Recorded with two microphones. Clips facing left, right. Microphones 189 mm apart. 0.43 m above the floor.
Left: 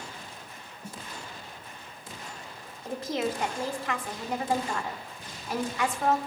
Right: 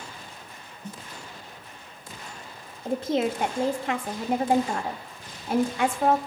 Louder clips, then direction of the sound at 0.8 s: Right 3 dB; 10° left (ahead or behind).